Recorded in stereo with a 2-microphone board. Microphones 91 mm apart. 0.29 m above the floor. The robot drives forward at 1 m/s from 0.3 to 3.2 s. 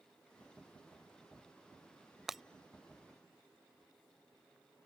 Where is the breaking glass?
5° right (ahead or behind).